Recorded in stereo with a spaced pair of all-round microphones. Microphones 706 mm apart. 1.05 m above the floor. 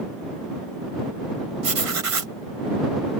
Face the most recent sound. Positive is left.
turn(degrees=-50)  # may be behind; listen again after turning